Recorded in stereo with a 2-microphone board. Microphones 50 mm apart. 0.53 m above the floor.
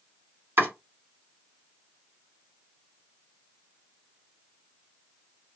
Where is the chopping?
50° right (ahead or behind), 1.9 m.